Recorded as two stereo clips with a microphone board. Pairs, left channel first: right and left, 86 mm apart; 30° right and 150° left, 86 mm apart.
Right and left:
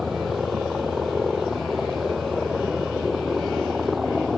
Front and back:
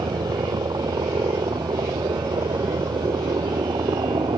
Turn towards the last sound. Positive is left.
turn(degrees=180)